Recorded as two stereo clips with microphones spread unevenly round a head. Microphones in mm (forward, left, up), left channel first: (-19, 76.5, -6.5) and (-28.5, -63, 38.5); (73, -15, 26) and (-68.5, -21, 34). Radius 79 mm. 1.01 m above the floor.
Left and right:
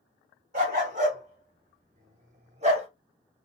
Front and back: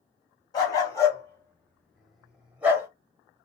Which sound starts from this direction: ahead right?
A dog barking, at 0.5 s.